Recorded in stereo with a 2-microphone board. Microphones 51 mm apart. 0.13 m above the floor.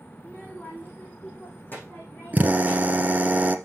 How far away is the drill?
About 1.3 m.